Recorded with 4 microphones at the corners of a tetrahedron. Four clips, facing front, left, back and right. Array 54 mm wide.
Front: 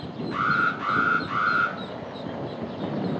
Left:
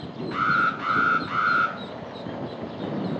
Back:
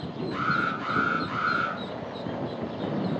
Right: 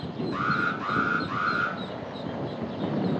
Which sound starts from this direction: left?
An alarm, at 0.3 s.